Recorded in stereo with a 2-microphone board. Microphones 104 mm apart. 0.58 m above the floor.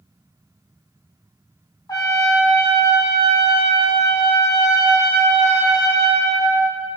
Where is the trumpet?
40° left (ahead or behind), 2.5 m.